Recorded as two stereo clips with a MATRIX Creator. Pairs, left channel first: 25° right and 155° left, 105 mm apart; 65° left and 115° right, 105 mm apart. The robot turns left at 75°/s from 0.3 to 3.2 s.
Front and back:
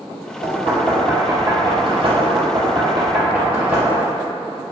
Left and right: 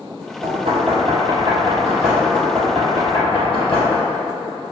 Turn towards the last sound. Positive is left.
turn(degrees=80)